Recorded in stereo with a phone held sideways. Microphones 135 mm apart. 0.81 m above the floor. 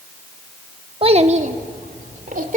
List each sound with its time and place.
1.0 s a child speaking: 45° right (ahead or behind), 1.1 m; by 2.6 s 80° right, 2 m